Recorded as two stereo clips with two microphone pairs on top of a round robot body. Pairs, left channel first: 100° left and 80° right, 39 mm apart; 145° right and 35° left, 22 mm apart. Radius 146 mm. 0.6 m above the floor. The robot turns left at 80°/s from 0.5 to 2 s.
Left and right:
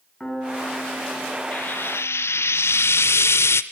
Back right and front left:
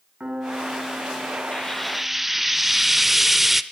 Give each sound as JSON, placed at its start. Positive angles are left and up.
{"t": 0.2, "sound": "a piano", "azimuth_deg": 30, "distance_m": 7.5}
{"t": 1.5, "sound": "frying", "azimuth_deg": 150, "distance_m": 0.5}